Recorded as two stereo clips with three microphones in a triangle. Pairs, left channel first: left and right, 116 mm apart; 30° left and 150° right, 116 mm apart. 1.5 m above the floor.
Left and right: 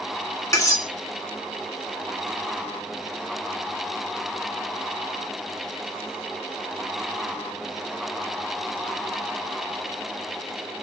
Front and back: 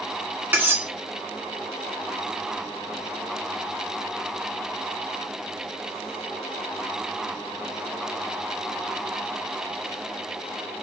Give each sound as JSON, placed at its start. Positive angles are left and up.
{"t": 0.5, "sound": "cutlery clinking", "azimuth_deg": 140, "distance_m": 1.0}